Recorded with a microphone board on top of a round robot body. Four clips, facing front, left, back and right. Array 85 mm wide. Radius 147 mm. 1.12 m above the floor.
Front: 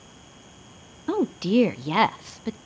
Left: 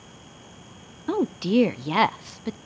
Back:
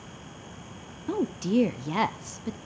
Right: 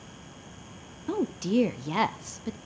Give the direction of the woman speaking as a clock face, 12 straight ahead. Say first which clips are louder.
Left 4 dB, front 4 dB; 10 o'clock.